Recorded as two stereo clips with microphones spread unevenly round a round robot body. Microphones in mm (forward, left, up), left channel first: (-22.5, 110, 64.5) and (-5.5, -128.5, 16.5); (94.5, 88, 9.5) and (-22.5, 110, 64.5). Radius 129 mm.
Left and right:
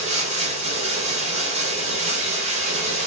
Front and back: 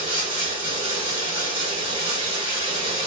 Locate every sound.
0.0 s running water: 155° right, 1.5 m